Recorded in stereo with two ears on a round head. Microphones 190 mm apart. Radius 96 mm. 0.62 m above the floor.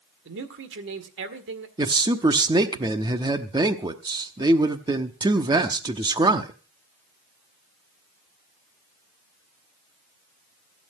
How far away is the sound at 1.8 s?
About 0.9 m.